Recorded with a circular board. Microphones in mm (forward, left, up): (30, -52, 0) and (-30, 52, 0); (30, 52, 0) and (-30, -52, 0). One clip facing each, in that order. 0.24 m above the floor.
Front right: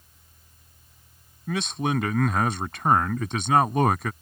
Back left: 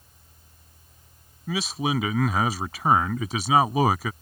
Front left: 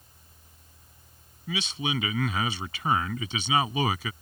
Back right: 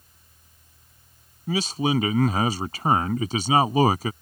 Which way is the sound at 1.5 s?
155° right.